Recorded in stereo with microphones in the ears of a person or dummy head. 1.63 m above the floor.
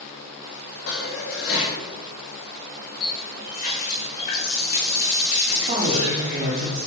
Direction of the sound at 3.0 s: 45° left (ahead or behind).